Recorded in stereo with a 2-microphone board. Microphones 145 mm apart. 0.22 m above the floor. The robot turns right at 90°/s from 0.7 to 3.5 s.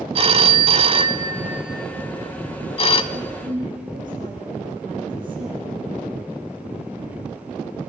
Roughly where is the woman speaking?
Behind right.